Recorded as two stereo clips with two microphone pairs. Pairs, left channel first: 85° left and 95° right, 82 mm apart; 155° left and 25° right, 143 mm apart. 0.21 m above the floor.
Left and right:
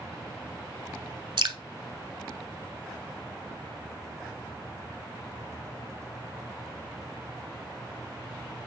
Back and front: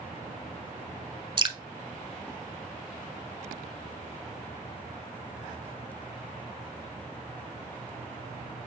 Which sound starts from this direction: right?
Dripping, at 1.4 s.